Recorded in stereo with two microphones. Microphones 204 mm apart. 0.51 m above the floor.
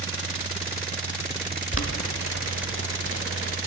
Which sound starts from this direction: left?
Boiling, at 1.7 s.